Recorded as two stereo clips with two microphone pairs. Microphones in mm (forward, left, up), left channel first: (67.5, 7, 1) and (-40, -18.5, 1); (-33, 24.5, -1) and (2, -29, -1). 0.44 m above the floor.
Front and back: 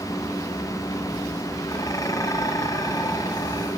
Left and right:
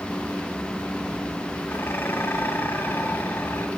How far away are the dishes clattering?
About 2 m.